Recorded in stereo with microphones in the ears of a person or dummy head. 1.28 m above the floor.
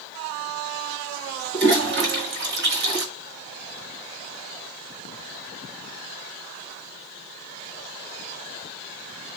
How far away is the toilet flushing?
About 2.5 m.